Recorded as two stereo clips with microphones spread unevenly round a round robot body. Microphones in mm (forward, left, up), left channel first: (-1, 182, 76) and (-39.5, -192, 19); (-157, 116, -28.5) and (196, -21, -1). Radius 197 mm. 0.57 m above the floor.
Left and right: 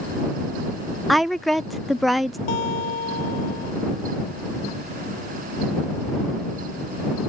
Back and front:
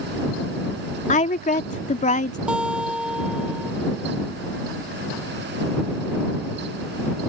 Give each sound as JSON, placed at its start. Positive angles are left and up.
{"t": 1.1, "sound": "a woman speaking", "azimuth_deg": -170}
{"t": 2.5, "sound": "a guitar", "azimuth_deg": 65}